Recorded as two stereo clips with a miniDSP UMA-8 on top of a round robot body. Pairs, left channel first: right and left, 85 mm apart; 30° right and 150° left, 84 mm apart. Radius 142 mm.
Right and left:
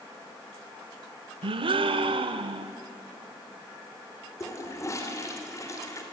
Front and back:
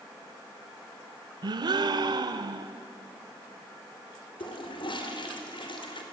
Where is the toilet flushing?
40° right, 3 m.